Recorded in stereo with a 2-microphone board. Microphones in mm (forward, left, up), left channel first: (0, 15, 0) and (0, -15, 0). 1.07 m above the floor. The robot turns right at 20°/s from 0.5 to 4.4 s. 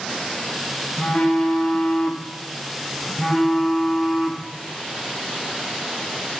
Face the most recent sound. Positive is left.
turn(degrees=-160)